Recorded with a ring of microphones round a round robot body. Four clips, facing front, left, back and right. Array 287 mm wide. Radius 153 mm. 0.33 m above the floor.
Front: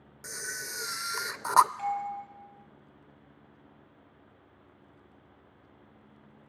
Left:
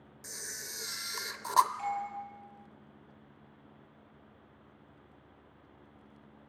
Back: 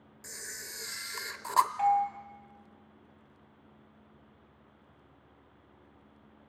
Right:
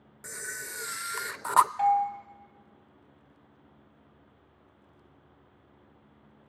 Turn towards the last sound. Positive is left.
turn(degrees=-110)